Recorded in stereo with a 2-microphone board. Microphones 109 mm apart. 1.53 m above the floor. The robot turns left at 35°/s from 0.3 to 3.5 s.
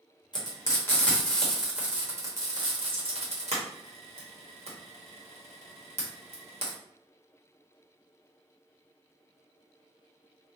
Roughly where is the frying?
Left.